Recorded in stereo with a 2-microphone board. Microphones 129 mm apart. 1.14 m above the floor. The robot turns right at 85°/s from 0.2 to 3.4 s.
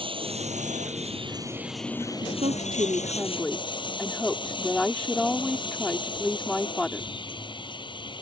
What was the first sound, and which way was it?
Running water, 135° right.